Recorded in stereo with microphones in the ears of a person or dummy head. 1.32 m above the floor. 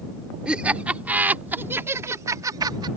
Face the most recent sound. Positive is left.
turn(degrees=-25)  # may be behind; listen again after turning